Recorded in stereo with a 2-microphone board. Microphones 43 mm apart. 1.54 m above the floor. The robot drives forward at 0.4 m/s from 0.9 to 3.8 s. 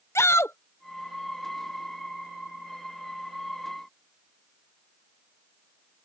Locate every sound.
0.1 s a shout: 75° left (ahead or behind)